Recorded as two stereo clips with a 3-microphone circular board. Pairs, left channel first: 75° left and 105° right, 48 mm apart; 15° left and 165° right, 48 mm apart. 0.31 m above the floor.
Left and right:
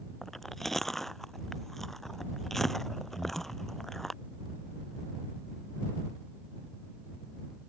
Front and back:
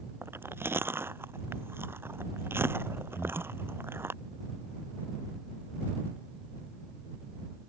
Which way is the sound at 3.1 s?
40° right.